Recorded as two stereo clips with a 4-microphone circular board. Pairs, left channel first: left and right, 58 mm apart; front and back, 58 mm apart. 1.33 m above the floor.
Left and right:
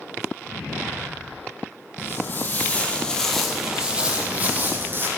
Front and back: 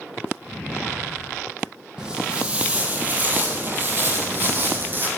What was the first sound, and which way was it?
Footsteps, 110° left.